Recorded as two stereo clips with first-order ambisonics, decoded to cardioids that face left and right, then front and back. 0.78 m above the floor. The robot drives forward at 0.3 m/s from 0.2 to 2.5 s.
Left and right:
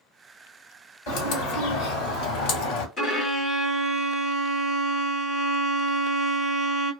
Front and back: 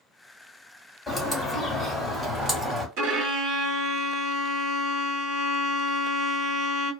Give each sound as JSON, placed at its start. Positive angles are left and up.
{"t": 1.1, "sound": "a bird", "azimuth_deg": 85, "distance_m": 1.3}
{"t": 3.0, "sound": "a violin", "azimuth_deg": 155, "distance_m": 1.1}